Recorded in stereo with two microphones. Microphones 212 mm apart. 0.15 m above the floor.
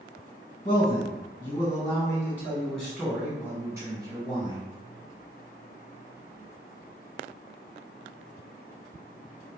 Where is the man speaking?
35° left (ahead or behind), 1.5 m; by 4.7 s 25° right (ahead or behind), 1.7 m.